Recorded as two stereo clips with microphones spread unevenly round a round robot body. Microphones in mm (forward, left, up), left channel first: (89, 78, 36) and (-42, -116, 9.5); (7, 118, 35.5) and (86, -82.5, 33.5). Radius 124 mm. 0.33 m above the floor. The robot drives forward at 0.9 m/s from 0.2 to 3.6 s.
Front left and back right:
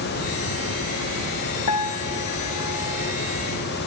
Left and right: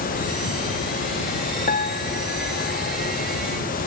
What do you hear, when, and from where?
1.7 s a piano: 60° left; by 3.1 s 75° left